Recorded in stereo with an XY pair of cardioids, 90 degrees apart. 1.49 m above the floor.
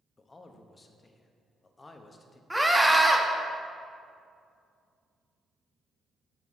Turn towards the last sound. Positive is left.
turn(degrees=-5)